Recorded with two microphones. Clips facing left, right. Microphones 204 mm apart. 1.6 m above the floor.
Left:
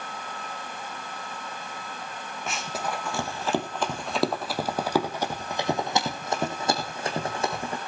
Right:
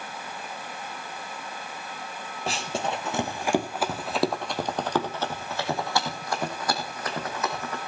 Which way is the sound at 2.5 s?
35° right (ahead or behind).